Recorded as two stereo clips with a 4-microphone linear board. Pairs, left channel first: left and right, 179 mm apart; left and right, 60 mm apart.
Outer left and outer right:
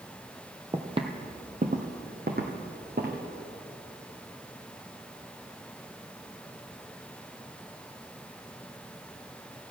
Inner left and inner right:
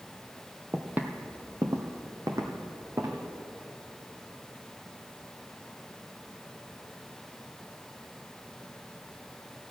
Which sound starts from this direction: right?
Footsteps, at 0.7 s.